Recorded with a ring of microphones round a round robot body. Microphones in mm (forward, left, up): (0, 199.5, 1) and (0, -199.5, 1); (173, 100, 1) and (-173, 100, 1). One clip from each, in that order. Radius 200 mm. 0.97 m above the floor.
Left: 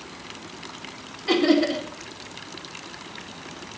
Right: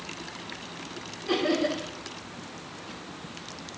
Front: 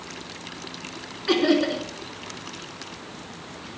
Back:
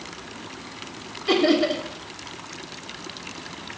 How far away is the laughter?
About 3 m.